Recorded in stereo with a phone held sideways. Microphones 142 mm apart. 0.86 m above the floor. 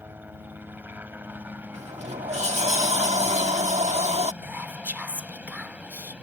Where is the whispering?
15° right (ahead or behind).